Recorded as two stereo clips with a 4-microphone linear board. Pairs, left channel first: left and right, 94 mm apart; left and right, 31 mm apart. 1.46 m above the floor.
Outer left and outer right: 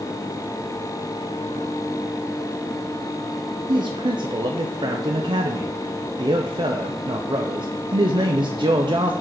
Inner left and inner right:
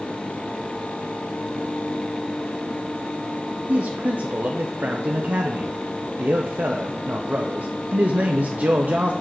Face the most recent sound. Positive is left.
turn(degrees=-55)  # may be behind; listen again after turning